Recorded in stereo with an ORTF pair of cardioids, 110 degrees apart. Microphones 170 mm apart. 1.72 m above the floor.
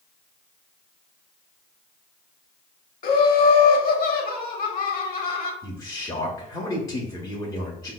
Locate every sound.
3.0 s laughter: 60° left, 0.9 m
5.6 s a man speaking: 20° left, 0.7 m